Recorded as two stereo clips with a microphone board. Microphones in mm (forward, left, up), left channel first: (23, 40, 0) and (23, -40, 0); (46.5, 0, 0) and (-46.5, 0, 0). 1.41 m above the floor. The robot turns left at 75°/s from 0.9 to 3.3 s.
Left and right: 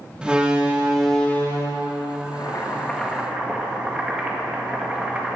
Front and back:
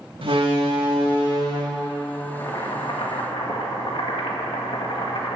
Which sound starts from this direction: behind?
A door slam, at 0.2 s.